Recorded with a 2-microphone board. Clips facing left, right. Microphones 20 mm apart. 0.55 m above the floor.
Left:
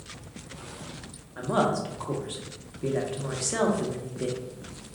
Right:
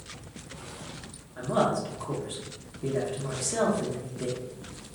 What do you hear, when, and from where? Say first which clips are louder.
1.4 s a woman speaking: left 1 dB; 20° left (ahead or behind), 0.7 m